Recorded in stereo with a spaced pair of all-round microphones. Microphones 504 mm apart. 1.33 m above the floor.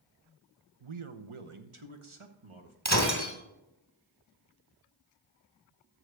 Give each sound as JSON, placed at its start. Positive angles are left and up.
{"t": 0.8, "sound": "a man speaking", "side_deg": -70, "distance_m": 0.7}
{"t": 2.9, "sound": "breaking glass", "side_deg": -35, "distance_m": 2.0}